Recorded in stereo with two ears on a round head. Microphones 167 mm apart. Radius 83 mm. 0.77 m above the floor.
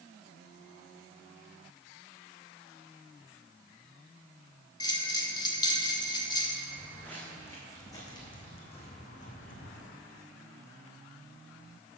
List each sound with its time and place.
4.8 s a bell: 25° left (ahead or behind), 1.2 m
6.7 s footsteps: 5° left (ahead or behind), 3 m; by 9.9 s 60° left (ahead or behind), 2 m